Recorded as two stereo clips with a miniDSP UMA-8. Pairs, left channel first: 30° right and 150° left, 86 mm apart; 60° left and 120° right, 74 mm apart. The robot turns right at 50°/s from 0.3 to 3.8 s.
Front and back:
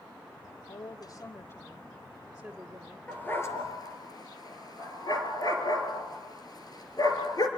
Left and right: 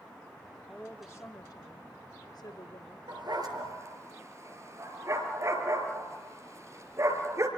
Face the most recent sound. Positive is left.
turn(degrees=-70)